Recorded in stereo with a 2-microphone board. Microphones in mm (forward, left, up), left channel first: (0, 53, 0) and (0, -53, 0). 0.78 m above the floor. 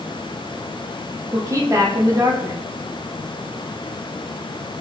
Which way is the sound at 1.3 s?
30° right (ahead or behind).